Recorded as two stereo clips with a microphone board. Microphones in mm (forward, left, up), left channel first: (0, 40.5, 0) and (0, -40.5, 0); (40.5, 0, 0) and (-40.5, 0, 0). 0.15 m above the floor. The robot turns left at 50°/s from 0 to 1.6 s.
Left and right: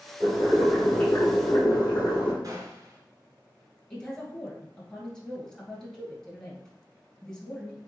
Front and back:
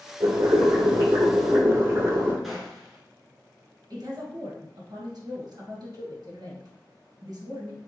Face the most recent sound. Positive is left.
turn(degrees=170)